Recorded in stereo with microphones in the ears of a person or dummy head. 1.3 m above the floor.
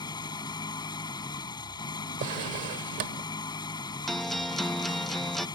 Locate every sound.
0.0 s an engine running: 20° left (ahead or behind)
2.2 s a drawer: 50° right (ahead or behind)
4.1 s a guitar: centre (ahead or behind)